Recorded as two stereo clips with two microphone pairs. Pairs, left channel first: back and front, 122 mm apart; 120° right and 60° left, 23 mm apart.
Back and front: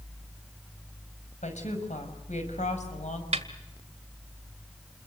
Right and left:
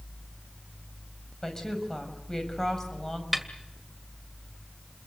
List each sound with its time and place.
1.4 s a woman speaking: 170° left, 6 m
3.3 s a snare drum: 25° right, 1.9 m